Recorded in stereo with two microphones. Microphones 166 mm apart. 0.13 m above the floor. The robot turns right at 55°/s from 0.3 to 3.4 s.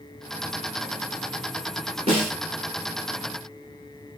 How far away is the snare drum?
About 1.1 m.